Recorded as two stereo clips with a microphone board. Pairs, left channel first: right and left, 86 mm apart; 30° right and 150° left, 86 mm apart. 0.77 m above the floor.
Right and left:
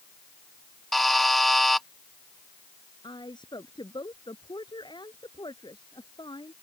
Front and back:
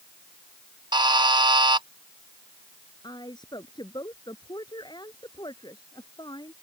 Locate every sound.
0.9 s a buzzer: straight behind
3.0 s a woman speaking: 65° right